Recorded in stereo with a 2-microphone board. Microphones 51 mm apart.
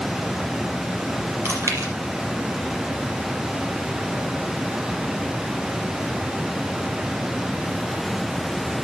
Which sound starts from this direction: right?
Chewing, at 1.4 s.